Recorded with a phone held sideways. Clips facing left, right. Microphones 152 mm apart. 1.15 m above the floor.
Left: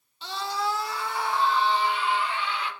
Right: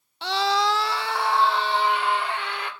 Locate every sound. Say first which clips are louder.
0.2 s a scream: right 7 dB; 65° right (ahead or behind), 0.7 m; by 2.7 s 60° right (ahead or behind), 3 m